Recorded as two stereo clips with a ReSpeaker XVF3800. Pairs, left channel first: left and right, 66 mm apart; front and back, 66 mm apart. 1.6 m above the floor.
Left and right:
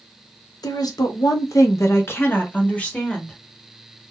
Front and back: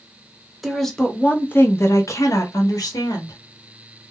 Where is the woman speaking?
90° left, 0.9 m; by 3.4 s 15° left, 1.4 m.